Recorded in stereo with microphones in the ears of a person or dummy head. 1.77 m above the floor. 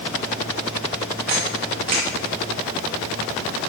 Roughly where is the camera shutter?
Right.